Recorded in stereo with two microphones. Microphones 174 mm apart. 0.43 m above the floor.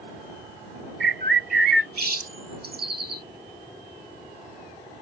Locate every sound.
1.0 s a bird: 60° right (ahead or behind)